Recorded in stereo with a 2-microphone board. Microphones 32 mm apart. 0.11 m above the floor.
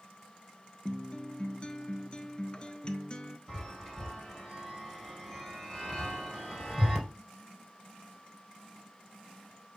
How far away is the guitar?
About 0.6 m.